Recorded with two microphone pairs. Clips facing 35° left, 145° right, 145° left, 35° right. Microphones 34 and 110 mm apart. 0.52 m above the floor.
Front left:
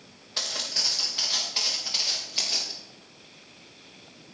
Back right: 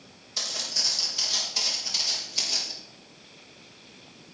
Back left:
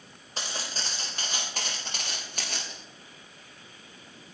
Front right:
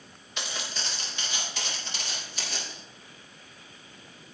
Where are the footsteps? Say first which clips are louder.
Front left 1 dB, even; 90° left, 4 m; by 2.7 s 110° left, 6 m.